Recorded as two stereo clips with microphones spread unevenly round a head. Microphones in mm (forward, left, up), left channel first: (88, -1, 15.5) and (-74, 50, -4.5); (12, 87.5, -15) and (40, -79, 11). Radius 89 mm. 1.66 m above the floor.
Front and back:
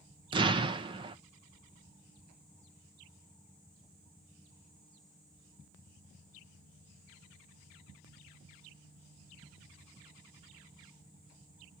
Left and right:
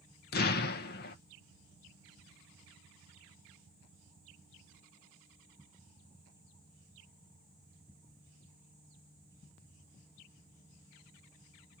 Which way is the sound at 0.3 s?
105° left.